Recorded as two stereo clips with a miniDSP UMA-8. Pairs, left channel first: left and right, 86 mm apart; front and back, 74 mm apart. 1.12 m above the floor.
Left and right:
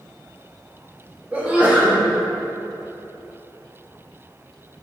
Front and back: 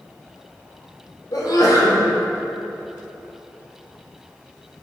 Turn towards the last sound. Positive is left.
turn(degrees=-15)